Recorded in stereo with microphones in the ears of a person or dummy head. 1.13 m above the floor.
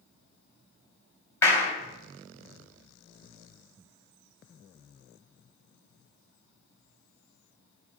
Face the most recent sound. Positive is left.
turn(degrees=20)  # may be behind; listen again after turning